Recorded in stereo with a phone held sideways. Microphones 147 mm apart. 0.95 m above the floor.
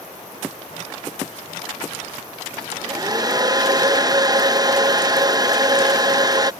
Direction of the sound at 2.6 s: 30° right (ahead or behind).